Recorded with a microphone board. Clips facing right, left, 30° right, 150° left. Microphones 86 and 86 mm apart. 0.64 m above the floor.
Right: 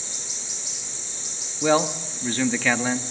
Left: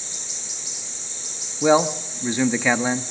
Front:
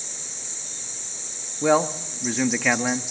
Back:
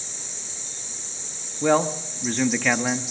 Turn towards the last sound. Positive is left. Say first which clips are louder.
# left 3 dB, even
turn(degrees=45)